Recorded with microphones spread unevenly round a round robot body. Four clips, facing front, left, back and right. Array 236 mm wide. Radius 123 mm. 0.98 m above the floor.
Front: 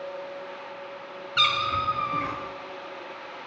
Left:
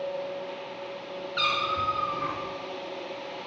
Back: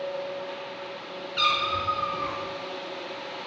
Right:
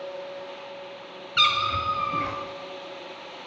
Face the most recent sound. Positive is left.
turn(degrees=-60)